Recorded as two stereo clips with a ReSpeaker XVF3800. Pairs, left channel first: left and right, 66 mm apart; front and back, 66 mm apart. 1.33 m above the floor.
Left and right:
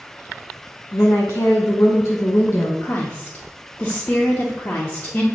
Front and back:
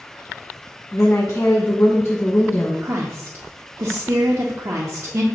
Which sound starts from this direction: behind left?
A woman speaking, at 2.8 s.